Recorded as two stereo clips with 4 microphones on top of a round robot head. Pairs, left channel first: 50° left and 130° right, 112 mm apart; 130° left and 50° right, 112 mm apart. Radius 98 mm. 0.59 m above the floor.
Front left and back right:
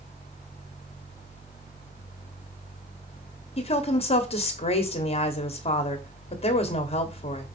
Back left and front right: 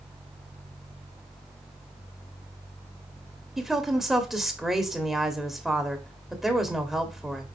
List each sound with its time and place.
3.6 s a woman speaking: 40° left, 1.6 m